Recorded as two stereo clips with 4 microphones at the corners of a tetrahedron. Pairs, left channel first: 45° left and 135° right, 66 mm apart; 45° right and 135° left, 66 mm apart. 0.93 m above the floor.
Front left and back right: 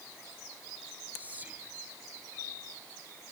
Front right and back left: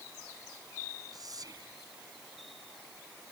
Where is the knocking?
I don't hear knocking.